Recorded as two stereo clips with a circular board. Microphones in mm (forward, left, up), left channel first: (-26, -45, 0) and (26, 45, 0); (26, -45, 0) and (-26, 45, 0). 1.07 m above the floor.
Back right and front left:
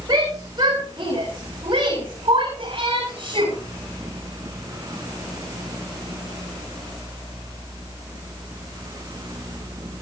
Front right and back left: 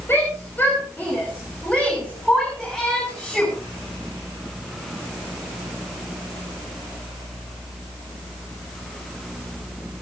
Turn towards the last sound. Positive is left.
turn(degrees=25)